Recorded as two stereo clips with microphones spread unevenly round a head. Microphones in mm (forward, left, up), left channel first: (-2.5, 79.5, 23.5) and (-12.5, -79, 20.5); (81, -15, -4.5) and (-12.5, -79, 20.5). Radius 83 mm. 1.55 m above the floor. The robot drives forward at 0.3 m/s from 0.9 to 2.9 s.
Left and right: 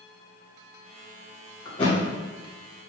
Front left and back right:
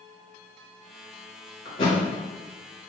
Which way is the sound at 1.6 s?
60° left.